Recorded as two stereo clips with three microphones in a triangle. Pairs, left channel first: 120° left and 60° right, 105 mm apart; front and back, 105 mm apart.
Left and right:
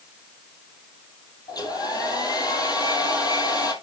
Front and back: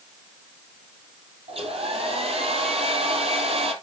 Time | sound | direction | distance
1.5 | a hair dryer | 170° left | 2 m